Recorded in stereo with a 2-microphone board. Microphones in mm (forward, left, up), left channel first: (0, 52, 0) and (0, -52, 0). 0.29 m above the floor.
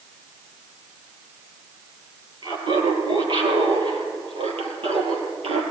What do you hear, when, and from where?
2.4 s laughter: 50° right (ahead or behind), 6 m; by 5.6 s 70° right (ahead or behind), 7 m